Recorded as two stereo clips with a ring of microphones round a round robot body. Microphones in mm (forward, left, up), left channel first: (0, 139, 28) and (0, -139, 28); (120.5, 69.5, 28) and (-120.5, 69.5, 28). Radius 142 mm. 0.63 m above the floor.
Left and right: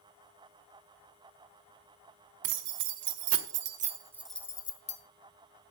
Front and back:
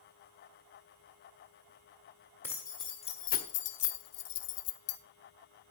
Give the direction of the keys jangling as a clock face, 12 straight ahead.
3 o'clock.